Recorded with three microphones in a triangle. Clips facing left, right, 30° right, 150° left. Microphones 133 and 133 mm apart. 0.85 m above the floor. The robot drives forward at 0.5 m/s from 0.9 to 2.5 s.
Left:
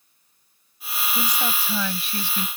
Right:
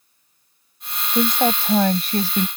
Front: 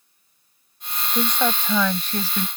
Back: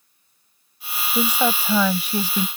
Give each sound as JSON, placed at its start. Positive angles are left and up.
{"t": 1.1, "sound": "a woman speaking", "azimuth_deg": -125}